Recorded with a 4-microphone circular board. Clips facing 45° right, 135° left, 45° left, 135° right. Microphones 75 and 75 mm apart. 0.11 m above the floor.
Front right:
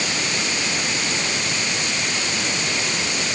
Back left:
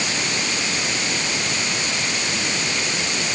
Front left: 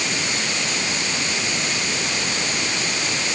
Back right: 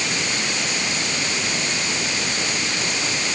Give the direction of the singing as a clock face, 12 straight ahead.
No singing in this recording.